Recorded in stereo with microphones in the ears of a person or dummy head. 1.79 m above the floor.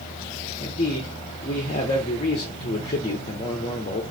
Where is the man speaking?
30° left (ahead or behind), 0.7 m.